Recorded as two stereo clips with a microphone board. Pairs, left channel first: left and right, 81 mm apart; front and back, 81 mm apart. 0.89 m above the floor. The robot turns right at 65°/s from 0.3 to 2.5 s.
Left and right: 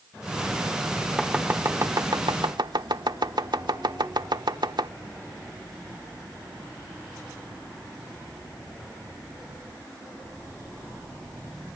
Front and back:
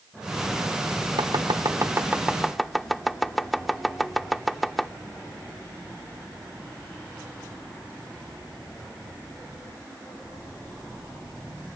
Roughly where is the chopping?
Behind.